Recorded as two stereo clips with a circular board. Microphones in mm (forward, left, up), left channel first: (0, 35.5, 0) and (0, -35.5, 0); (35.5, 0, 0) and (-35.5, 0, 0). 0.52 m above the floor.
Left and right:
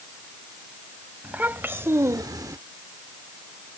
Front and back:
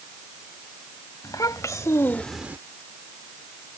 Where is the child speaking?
25° right; by 2.6 s 125° right.